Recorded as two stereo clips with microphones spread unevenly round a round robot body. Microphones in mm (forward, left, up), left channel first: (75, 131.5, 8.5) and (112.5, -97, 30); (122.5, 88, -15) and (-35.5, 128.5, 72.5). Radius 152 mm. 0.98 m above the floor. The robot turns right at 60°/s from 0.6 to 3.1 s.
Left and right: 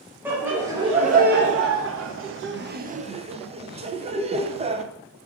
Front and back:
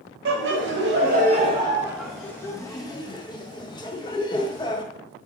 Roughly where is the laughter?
Behind.